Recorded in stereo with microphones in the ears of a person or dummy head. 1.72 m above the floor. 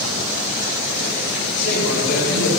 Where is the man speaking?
60° left (ahead or behind), 4.5 m.